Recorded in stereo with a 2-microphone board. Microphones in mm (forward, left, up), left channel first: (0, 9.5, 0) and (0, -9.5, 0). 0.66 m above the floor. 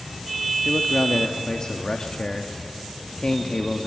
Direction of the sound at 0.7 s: 40° left (ahead or behind).